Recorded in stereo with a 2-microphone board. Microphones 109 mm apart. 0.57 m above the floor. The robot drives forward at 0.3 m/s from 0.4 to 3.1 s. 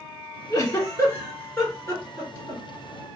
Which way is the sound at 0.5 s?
35° left (ahead or behind).